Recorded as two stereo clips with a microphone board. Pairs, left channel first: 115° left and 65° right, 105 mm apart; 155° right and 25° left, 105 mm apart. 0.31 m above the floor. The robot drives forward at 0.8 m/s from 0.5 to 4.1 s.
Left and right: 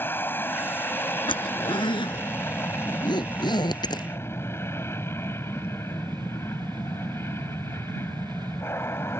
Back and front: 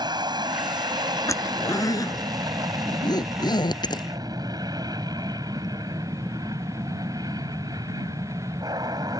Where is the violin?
No violin in this recording.